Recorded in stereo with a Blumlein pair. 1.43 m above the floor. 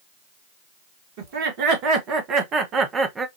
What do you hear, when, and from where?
1.2 s laughter: 45° right, 1.8 m; by 3.3 s 15° right, 1.0 m